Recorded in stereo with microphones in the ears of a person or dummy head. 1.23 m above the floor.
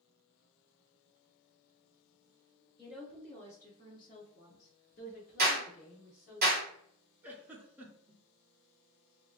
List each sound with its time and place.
2.8 s a woman speaking: centre (ahead or behind), 0.9 m; by 6.4 s 40° left (ahead or behind), 1.3 m
5.4 s a clap: 50° right (ahead or behind), 1.5 m
7.2 s a giggle: 10° right (ahead or behind), 0.6 m